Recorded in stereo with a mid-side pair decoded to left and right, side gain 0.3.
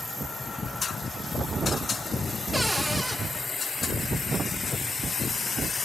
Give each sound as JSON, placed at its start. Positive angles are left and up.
{"t": 2.5, "sound": "a cupboard door", "azimuth_deg": -10, "distance_m": 2.5}